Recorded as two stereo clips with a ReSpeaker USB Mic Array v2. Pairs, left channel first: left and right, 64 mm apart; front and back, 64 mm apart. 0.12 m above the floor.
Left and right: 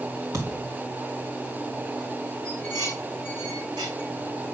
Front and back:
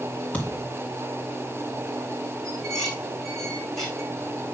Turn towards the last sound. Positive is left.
turn(degrees=-85)